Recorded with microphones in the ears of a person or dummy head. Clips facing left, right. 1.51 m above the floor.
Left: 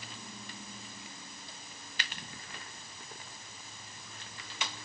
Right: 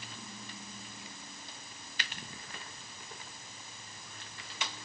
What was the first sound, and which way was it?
Only background noise.